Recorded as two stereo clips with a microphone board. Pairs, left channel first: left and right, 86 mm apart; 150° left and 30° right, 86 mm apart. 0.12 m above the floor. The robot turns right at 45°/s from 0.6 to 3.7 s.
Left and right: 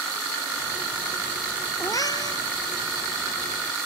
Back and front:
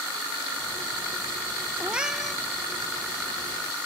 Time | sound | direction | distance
1.8 | a cat meowing | 40° left | 1.1 m